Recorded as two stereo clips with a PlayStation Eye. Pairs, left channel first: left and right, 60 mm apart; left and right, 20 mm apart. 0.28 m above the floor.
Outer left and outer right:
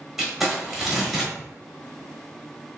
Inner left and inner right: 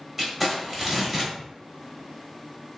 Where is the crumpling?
5° right (ahead or behind), 1.0 m.